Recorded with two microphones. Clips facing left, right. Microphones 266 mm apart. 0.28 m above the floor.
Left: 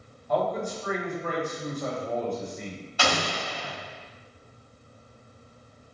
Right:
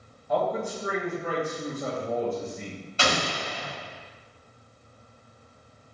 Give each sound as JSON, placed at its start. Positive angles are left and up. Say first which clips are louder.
{"t": 0.3, "sound": "a man speaking", "louder": "even", "side_deg": -10, "distance_m": 1.2}
{"t": 3.0, "sound": "an explosion", "louder": "even", "side_deg": -25, "distance_m": 1.4}